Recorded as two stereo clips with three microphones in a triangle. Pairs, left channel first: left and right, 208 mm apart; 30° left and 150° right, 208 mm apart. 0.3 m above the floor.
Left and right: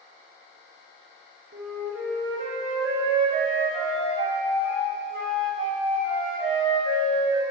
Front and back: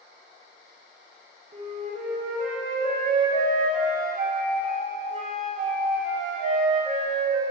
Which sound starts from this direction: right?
A flute, at 1.5 s.